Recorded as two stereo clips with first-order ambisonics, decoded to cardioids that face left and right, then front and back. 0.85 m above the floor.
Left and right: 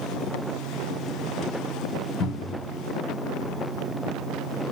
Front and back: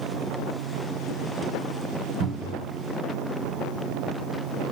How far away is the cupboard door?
About 1.9 m.